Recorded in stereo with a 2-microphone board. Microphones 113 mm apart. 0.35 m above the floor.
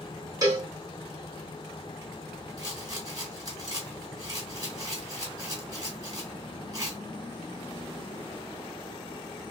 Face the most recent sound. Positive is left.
turn(degrees=-35)  # may be behind; listen again after turning